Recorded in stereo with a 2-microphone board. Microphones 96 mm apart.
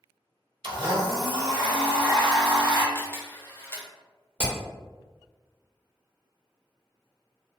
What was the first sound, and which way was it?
A blender, 55° right (ahead or behind).